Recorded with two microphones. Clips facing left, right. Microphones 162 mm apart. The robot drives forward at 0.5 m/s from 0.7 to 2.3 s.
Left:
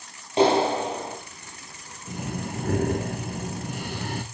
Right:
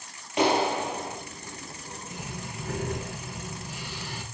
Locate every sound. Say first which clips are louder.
0.4 s a clap: left 4 dB; 30° left (ahead or behind), 4 m
2.1 s breathing: left 9 dB; 55° left (ahead or behind), 2.5 m